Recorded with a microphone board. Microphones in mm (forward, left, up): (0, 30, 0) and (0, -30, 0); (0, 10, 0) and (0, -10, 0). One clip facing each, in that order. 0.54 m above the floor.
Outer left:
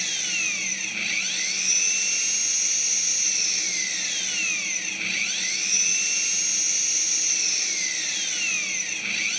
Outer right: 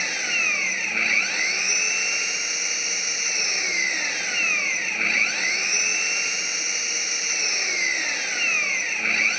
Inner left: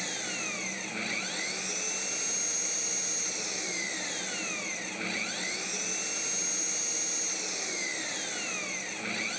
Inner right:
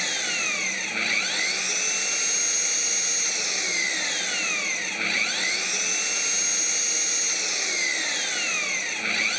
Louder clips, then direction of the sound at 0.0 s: Outer right 6 dB, inner right 9 dB; 40° right (ahead or behind).